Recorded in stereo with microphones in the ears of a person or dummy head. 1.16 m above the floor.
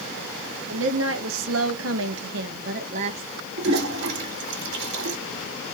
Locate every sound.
0.7 s a woman speaking: 75° right (ahead or behind), 1.2 m; by 3.3 s 25° right (ahead or behind), 0.9 m
3.6 s a toilet flushing: 70° right (ahead or behind), 1.9 m